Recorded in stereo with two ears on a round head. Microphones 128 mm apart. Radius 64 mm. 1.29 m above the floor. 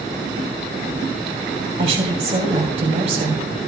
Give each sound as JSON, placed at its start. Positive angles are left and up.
{"t": 1.8, "sound": "a woman speaking", "side_deg": -45, "distance_m": 2.5}